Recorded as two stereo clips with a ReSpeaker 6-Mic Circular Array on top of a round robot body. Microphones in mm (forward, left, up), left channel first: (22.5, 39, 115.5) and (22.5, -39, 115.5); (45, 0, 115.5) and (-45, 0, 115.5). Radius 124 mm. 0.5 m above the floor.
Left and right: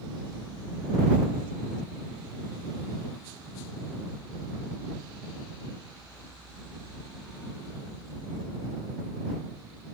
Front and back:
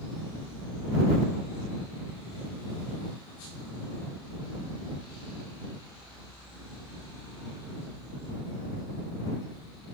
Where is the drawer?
I don't hear a drawer.